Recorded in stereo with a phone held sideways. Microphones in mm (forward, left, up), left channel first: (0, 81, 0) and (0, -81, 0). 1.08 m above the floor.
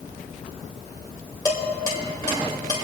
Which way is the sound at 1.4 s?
25° left (ahead or behind).